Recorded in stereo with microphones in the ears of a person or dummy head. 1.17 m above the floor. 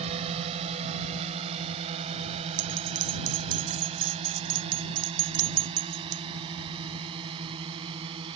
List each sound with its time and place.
0.0 s a drone: 35° right (ahead or behind); by 8.4 s 30° right (ahead or behind)
2.6 s a bell: 50° right (ahead or behind)